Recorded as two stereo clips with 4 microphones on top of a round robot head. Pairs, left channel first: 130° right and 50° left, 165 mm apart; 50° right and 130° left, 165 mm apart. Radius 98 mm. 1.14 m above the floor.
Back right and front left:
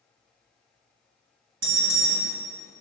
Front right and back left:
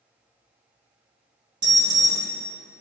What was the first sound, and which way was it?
An alarm, 65° left.